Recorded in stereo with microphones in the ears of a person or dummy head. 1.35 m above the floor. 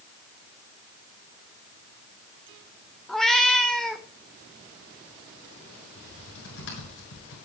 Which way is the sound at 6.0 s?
80° left.